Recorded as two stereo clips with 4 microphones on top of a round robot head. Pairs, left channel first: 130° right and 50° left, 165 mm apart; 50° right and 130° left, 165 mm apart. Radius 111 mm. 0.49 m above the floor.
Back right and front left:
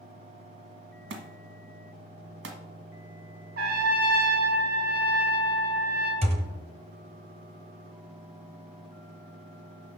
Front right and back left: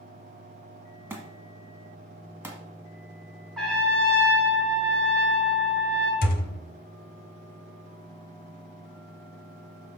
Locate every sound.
1.1 s a thud: 55° left, 1.4 m
3.6 s a trumpet: 35° left, 2.5 m
6.2 s a thud: 10° right, 1.0 m